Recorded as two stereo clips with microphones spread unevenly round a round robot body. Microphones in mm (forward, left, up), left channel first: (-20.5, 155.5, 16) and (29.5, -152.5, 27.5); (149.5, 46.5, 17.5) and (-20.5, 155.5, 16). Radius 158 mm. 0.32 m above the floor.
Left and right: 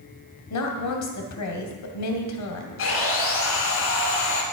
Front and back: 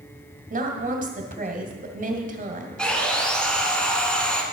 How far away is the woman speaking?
About 2.0 m.